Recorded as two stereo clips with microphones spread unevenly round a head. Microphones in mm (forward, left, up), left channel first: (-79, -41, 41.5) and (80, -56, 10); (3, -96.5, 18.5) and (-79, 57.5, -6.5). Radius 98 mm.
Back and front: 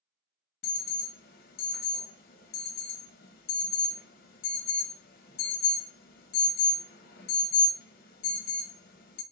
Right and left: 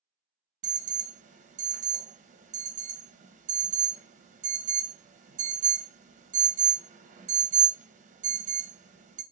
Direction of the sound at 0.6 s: 140° left.